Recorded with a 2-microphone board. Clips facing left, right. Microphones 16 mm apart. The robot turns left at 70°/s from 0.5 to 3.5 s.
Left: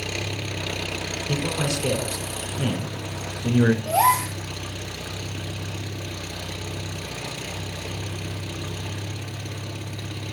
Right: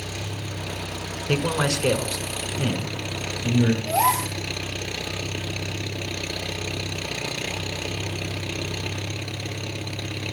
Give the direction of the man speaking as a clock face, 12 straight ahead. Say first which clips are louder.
Right 4 dB; 3 o'clock.